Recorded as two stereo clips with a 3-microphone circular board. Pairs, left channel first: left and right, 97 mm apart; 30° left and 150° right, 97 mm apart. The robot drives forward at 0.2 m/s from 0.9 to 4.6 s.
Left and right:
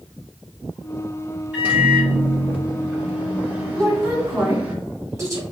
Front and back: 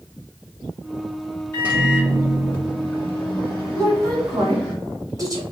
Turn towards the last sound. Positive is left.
turn(degrees=-130)